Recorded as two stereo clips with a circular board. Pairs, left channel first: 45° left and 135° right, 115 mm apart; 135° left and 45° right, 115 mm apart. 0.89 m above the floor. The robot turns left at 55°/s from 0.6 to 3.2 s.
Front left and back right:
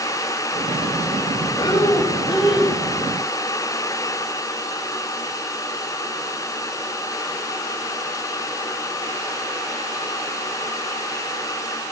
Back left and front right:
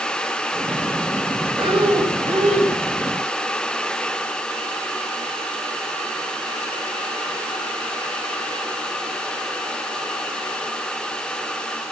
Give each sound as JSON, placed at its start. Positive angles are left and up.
{"t": 1.6, "sound": "breathing", "azimuth_deg": 0, "distance_m": 3.0}